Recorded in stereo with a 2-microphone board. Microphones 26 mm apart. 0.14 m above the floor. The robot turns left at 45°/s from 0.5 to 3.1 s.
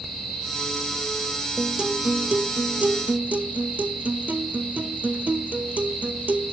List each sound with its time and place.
1.6 s a guitar: 20° right, 1.1 m; by 6.5 s 90° right, 1.1 m